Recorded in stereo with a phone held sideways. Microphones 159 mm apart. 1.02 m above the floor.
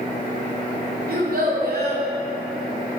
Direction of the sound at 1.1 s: 70° right (ahead or behind).